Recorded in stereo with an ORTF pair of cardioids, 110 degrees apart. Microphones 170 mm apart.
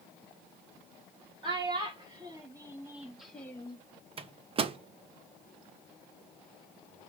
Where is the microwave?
35° right, 0.6 m.